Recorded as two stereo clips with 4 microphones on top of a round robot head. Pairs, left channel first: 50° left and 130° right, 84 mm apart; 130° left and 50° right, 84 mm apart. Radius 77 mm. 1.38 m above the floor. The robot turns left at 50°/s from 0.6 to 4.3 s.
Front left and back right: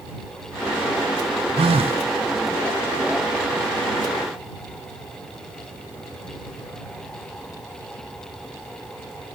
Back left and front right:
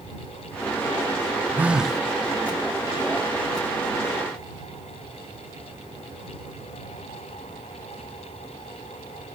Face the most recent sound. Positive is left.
turn(degrees=105)